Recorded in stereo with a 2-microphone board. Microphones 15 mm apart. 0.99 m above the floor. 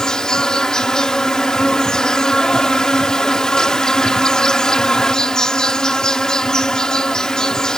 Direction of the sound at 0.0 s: 55° left (ahead or behind).